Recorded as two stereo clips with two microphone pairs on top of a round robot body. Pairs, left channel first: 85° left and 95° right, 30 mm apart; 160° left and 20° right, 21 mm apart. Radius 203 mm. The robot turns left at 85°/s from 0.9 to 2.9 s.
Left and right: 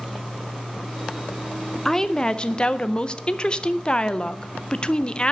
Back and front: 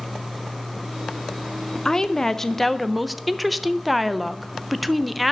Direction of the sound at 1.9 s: 160° left.